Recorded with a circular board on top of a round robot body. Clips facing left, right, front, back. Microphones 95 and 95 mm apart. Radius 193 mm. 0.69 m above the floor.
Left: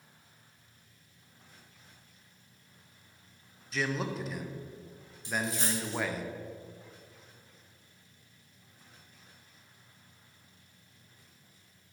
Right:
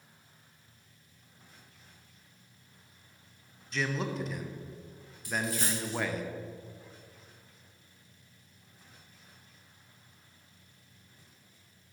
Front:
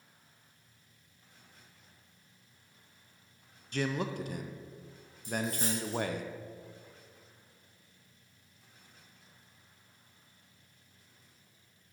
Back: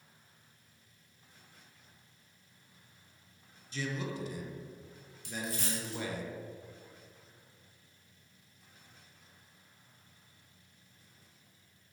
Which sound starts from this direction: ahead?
A man speaking, at 3.7 s.